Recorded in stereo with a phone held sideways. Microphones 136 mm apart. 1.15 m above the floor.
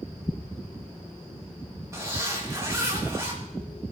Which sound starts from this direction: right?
A zipper, at 1.9 s.